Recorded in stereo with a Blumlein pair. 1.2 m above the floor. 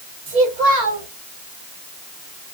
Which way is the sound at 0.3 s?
45° right.